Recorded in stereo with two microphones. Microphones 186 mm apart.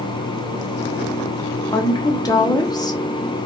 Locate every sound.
1.7 s a woman speaking: 20° left (ahead or behind), 0.6 m